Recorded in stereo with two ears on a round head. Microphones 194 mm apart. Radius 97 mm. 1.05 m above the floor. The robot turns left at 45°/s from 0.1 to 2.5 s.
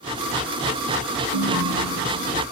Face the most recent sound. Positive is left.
turn(degrees=-165)